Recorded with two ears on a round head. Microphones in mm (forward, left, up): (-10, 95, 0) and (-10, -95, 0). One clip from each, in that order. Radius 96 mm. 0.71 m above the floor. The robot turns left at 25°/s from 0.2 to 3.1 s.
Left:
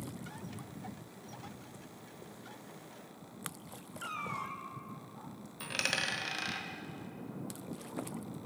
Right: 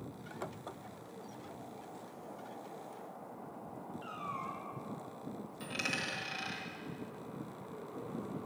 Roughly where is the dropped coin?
Left.